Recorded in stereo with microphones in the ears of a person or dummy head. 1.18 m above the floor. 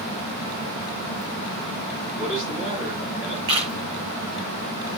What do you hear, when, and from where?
2.2 s a man speaking: 10° right (ahead or behind), 10 m
3.5 s a camera shutter: 30° right (ahead or behind), 4.5 m